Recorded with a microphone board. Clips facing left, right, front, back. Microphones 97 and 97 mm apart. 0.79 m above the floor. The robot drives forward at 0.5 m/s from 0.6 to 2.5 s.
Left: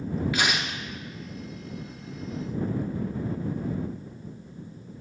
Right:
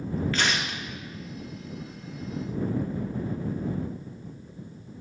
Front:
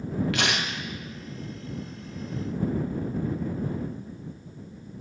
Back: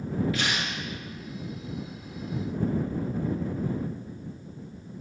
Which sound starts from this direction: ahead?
Tearing paper, at 0.3 s.